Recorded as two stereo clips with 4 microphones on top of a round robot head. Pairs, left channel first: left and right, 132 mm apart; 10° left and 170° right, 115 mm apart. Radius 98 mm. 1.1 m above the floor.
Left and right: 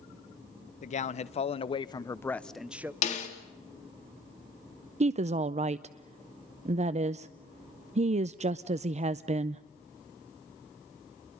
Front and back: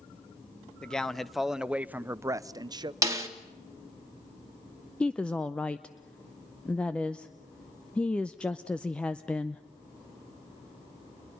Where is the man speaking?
90° left, 1.0 m; by 2.9 s 155° right, 0.7 m.